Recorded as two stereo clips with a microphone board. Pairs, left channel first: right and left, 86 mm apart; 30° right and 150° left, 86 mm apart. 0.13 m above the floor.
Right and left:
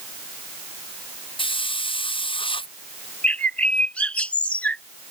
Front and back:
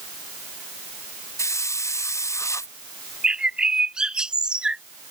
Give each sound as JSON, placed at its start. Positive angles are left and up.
{"t": 1.4, "sound": "a hiss", "azimuth_deg": -85}
{"t": 3.2, "sound": "a bird", "azimuth_deg": -145}